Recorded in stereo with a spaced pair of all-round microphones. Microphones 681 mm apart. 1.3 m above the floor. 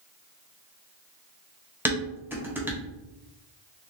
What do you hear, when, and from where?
1.9 s dishes clattering: 5° right (ahead or behind), 0.9 m